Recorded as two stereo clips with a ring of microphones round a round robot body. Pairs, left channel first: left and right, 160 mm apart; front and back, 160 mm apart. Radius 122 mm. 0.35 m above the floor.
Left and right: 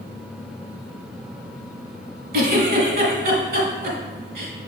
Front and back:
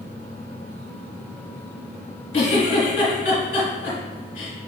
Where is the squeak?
I don't hear a squeak.